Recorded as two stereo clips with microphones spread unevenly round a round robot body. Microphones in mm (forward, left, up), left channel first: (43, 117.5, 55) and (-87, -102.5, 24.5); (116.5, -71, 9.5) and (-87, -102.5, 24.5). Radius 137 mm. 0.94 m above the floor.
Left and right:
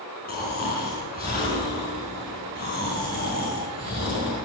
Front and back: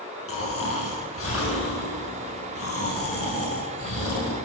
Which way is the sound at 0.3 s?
Straight ahead.